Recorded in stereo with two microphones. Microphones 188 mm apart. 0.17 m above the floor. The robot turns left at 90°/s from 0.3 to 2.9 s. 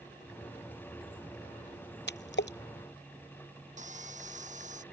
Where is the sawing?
40° right (ahead or behind).